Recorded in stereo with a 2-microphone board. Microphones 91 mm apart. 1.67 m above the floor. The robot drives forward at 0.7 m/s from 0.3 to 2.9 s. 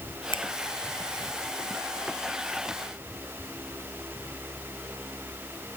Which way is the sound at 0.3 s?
60° left (ahead or behind).